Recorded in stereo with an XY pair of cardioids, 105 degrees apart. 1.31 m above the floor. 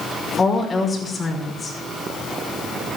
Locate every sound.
0.4 s a woman speaking: 30° left, 5 m